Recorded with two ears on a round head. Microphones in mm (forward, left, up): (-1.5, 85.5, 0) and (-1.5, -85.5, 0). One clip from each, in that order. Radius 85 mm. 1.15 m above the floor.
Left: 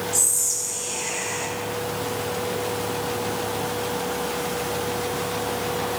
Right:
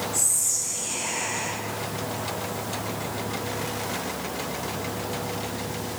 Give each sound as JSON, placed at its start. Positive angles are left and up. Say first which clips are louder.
{"t": 0.1, "sound": "whispering", "louder": "left 3 dB", "side_deg": 45, "distance_m": 0.9}